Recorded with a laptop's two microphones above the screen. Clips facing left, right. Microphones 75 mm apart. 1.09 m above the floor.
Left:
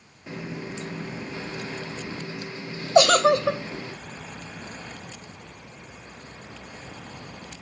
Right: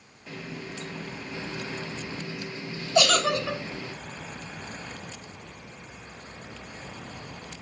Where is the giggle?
35° left (ahead or behind), 0.6 m.